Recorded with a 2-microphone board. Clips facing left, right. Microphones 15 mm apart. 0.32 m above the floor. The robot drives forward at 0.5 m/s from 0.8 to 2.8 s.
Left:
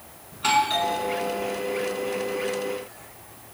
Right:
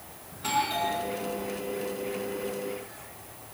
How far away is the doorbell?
About 4 m.